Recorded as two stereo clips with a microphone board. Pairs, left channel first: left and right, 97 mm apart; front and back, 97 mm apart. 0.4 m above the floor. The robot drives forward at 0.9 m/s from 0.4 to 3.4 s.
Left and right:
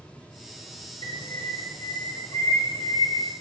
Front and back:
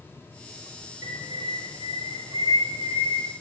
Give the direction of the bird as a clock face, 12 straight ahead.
8 o'clock.